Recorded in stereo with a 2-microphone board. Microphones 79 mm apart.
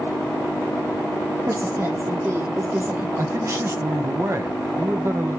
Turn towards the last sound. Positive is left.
turn(degrees=-40)  # may be behind; listen again after turning